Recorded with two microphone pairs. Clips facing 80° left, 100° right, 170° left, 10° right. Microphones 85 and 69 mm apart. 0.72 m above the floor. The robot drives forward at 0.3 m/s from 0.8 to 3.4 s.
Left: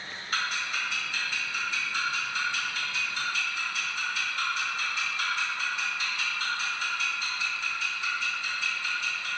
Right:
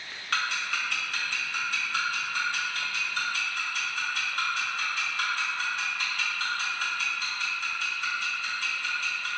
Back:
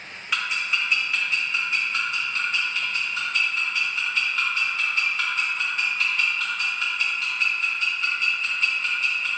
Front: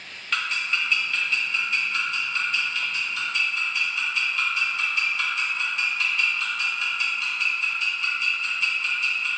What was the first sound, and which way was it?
Ticking, 110° right.